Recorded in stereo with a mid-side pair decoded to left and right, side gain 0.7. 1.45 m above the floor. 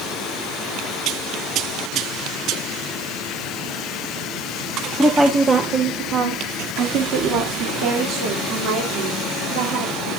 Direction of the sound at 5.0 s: 5° right.